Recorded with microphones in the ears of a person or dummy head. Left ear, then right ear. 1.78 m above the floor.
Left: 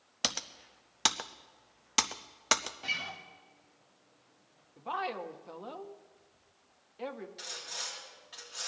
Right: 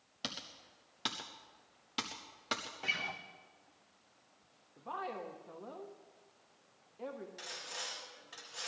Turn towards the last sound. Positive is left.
turn(degrees=-10)  # may be behind; listen again after turning